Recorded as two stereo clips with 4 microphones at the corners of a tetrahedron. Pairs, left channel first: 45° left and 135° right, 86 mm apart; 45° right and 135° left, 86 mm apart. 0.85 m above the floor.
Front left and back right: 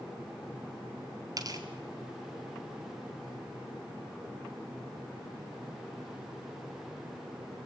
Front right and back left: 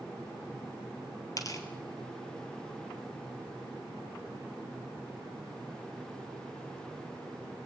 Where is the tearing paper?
90° right, 3 m.